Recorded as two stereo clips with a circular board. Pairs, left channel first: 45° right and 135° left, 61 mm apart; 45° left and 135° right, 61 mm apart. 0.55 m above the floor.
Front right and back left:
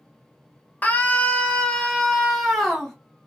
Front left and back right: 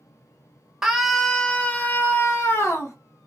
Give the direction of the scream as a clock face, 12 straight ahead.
2 o'clock.